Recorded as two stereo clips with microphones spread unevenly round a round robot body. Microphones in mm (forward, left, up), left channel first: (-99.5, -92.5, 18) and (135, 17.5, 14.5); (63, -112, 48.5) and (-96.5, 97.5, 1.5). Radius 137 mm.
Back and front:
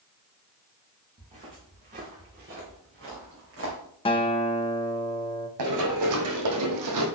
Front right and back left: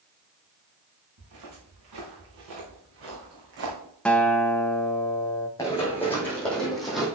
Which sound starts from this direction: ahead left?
Running footsteps, at 5.6 s.